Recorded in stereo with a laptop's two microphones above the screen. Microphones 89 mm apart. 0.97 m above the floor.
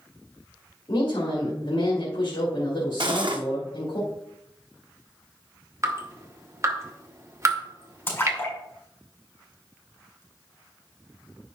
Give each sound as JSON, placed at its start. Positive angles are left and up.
{"t": 0.9, "sound": "a woman speaking", "side_deg": 70, "distance_m": 2.5}
{"t": 3.0, "sound": "cutlery clinking", "side_deg": -60, "distance_m": 1.3}
{"t": 5.8, "sound": "dripping", "side_deg": -35, "distance_m": 1.1}
{"t": 8.1, "sound": "a splash", "side_deg": 25, "distance_m": 5.0}